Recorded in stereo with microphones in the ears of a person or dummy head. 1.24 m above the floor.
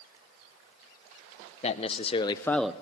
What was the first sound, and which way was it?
A man speaking, 30° left (ahead or behind).